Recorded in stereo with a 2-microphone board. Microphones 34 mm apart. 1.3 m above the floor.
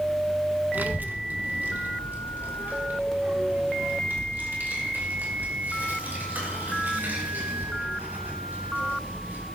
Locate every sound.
0.7 s a child speaking: 55° right (ahead or behind), 0.9 m; by 9.4 s 65° right (ahead or behind), 8.5 m